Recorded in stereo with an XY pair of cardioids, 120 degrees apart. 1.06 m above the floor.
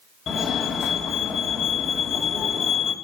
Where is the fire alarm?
50° left, 3.5 m.